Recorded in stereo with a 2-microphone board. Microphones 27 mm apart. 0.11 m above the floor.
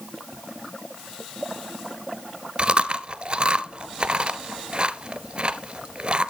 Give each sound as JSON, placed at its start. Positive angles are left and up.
{"t": 2.6, "sound": "chewing", "side_deg": -40, "distance_m": 0.5}